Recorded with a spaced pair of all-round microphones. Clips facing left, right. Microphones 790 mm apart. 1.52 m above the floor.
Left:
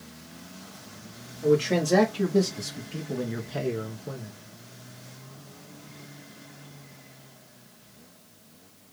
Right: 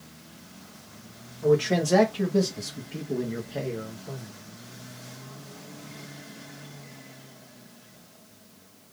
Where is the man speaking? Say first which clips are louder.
Even; 35° right (ahead or behind), 1.1 m; by 4.3 s 70° left (ahead or behind), 0.9 m.